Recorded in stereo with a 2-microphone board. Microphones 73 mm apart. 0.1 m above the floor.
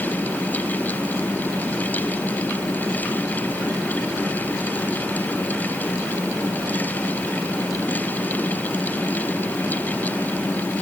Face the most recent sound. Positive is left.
No sound to turn to.